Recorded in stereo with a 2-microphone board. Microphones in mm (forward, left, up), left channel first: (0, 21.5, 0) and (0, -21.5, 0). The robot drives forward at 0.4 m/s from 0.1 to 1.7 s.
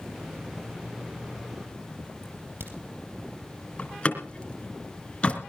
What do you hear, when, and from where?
2.2 s a crack: 50° right (ahead or behind), 3.5 m
3.8 s a door slam: 30° left (ahead or behind), 2.5 m